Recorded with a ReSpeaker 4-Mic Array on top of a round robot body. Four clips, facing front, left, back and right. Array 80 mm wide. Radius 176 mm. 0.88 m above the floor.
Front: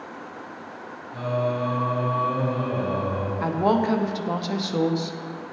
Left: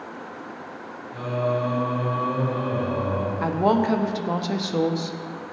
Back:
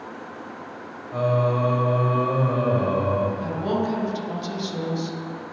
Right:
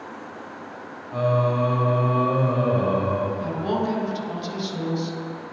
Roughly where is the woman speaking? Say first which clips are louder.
Left 4 dB, front 3 dB; ahead left.